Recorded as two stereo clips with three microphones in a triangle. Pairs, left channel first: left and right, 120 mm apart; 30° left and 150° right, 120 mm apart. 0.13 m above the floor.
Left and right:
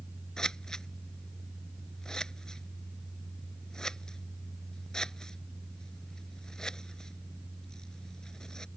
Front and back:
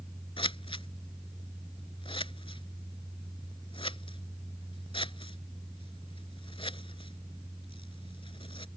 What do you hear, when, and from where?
0.4 s scissors: 5° left